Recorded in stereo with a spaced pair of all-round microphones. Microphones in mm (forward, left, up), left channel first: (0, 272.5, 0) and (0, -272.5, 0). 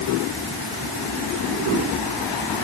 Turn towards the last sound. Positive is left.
No sound to turn to.